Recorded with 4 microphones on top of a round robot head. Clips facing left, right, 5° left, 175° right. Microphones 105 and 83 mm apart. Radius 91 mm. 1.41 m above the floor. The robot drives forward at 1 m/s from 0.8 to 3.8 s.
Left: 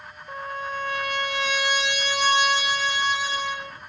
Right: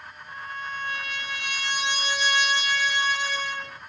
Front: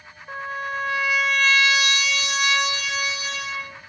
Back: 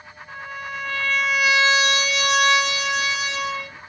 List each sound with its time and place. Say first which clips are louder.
0.3 s a trumpet: left 5 dB, front 4 dB; 55° left, 1.0 m; by 3.8 s 165° left, 2.5 m